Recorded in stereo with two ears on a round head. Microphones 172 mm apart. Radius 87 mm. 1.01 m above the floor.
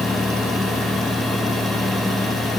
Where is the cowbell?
I don't hear a cowbell.